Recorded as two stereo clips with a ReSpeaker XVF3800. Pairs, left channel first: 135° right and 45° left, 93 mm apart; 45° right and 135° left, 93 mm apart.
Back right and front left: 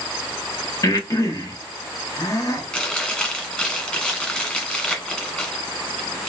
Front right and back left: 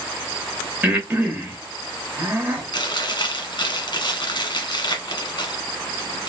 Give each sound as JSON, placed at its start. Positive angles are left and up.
{"t": 0.8, "sound": "breathing", "azimuth_deg": -165, "distance_m": 1.0}
{"t": 2.7, "sound": "chewing", "azimuth_deg": -55, "distance_m": 1.3}